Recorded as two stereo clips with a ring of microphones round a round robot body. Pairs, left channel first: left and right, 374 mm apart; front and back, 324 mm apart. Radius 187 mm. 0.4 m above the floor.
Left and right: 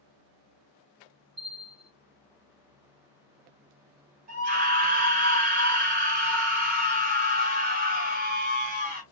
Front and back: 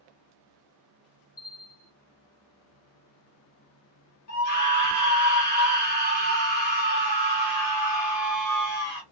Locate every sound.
1.4 s a bell: 5° left, 1.0 m
4.3 s a scream: 25° right, 1.2 m